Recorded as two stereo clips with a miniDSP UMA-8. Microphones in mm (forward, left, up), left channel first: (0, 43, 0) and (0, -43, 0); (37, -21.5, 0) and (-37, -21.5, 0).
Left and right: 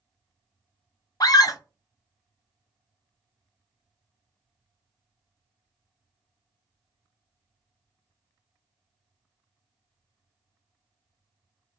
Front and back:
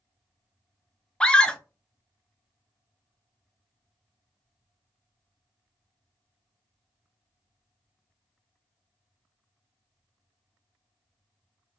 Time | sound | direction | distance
1.2 | a scream | 75° left | 0.5 m